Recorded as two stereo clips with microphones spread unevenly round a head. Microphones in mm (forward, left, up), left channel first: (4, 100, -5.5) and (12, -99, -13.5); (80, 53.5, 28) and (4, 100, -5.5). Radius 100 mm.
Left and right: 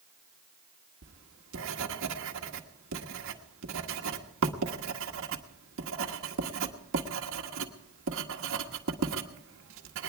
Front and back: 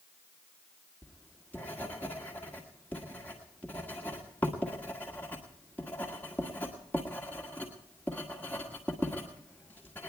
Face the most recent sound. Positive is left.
turn(degrees=-115)